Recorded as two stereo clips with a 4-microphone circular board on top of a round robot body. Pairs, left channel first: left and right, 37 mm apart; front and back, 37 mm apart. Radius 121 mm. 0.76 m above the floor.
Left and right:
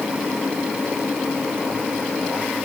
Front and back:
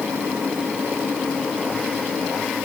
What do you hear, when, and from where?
Only background noise.